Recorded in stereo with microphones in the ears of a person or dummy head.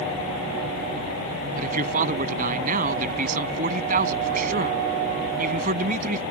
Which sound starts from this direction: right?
A man speaking, at 1.6 s.